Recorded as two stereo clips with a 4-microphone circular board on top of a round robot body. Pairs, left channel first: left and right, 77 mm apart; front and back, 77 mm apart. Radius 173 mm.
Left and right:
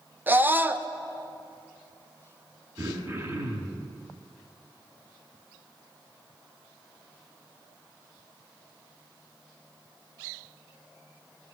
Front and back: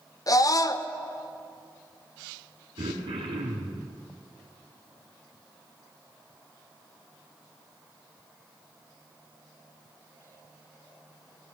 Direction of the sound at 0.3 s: 25° right.